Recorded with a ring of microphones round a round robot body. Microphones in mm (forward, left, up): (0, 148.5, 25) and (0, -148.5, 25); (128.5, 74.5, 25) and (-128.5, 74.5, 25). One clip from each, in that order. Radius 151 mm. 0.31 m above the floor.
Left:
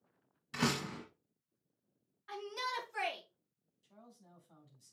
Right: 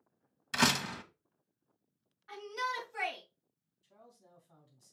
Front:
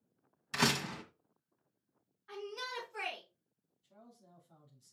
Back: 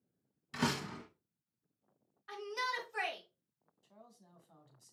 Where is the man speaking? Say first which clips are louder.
Right 1 dB, even; 175° left, 3.5 m.